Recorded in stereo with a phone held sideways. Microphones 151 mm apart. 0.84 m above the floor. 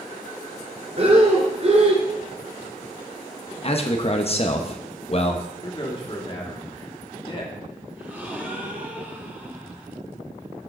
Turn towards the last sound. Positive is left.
turn(degrees=-10)  # may be behind; listen again after turning